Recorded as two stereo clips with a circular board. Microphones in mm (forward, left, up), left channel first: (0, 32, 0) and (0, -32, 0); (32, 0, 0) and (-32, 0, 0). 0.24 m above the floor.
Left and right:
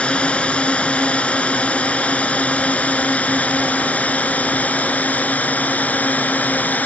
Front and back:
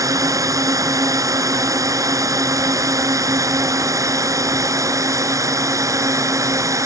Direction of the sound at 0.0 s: 160° left.